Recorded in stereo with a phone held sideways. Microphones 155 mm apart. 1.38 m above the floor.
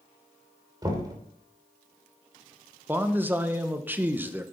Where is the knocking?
25° right (ahead or behind), 3 m.